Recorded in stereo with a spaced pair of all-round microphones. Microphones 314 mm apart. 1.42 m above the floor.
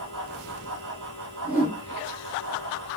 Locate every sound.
0.0 s a fan: 80° right, 3.5 m
1.4 s a whoosh: 80° right, 5.5 m